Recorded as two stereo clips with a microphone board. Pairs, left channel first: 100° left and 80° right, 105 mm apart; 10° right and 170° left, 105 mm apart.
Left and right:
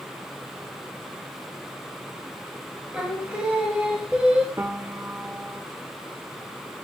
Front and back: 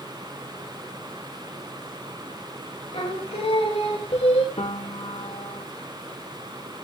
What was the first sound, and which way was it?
Singing, straight ahead.